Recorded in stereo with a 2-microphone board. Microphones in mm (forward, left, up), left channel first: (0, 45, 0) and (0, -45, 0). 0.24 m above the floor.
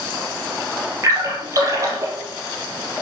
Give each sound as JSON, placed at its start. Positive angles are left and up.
{"t": 1.0, "sound": "a splash", "side_deg": -40, "distance_m": 3.5}